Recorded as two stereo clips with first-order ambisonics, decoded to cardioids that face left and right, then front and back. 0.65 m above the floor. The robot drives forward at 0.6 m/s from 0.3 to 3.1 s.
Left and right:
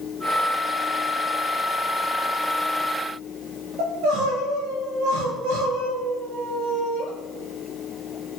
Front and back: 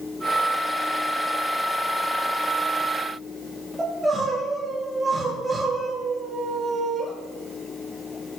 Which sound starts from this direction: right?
Crying, at 3.8 s.